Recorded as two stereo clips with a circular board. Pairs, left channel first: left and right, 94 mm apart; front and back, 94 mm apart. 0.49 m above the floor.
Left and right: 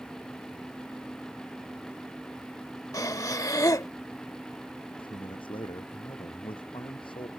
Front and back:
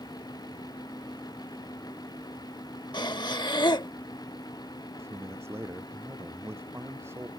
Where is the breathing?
40° left.